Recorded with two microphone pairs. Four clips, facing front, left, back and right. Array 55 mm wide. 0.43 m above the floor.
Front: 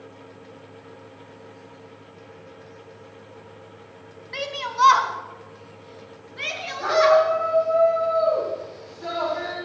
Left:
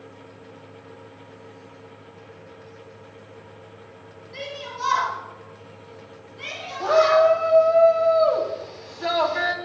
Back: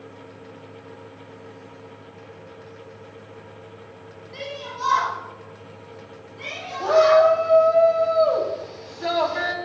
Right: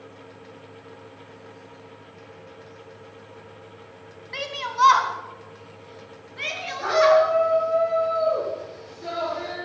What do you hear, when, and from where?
4.3 s a shout: 50° right, 2.5 m; by 7.2 s 40° right, 7 m
6.8 s a shout: 115° left, 3.5 m